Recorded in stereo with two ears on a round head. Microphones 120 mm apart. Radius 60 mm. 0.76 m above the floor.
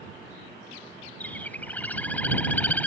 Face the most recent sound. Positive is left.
turn(degrees=10)  # may be behind; listen again after turning